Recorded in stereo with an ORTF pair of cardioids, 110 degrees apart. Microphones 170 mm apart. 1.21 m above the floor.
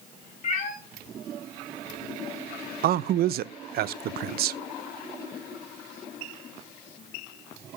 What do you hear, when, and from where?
0.4 s a cat meowing: 45° left, 3.5 m
2.8 s a man speaking: 60° right, 0.5 m